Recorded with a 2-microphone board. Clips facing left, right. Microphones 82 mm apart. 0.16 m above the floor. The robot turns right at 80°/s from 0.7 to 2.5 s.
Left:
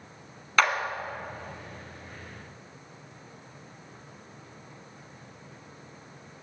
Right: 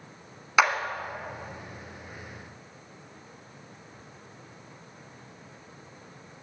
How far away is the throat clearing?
No throat clearing in this recording.